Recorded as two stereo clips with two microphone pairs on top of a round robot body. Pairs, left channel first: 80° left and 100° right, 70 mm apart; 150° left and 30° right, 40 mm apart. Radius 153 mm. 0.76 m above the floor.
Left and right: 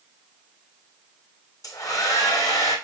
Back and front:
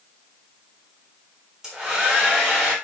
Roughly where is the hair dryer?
Ahead left.